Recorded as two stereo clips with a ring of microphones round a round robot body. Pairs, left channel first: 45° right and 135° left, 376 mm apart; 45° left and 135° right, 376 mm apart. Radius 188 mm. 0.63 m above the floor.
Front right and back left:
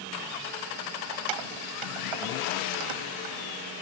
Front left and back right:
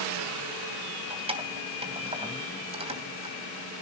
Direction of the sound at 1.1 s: 150° left.